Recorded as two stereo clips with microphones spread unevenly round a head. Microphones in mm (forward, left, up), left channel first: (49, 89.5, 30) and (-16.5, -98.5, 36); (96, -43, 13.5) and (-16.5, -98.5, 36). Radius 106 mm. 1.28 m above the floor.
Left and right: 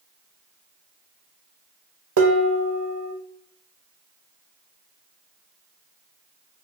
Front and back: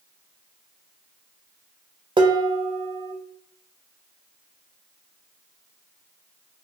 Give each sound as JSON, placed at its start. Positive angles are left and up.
{"t": 2.2, "sound": "dishes clattering", "azimuth_deg": -115, "distance_m": 0.7}